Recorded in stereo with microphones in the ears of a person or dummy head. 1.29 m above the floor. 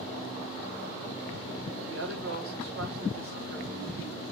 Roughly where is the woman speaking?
Right.